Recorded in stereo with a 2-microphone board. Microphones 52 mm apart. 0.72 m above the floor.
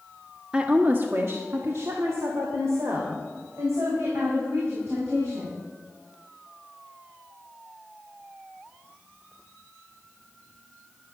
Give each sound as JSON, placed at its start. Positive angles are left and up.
{"t": 0.5, "sound": "a woman speaking", "side_deg": -20, "distance_m": 1.2}